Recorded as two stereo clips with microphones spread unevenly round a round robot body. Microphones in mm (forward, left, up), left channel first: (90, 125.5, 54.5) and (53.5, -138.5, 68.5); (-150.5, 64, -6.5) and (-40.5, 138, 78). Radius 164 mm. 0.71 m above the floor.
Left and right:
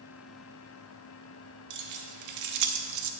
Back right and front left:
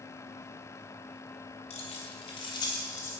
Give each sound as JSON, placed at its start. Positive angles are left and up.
{"t": 1.7, "sound": "keys jangling", "azimuth_deg": -110, "distance_m": 1.4}